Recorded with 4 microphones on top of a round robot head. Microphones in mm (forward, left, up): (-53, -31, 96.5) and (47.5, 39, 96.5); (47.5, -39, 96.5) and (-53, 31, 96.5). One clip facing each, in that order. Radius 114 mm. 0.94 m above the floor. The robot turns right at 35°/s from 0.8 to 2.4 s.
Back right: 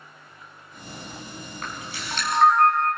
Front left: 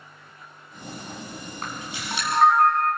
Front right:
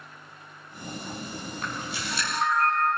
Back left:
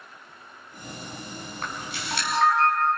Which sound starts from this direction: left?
A camera shutter, at 1.6 s.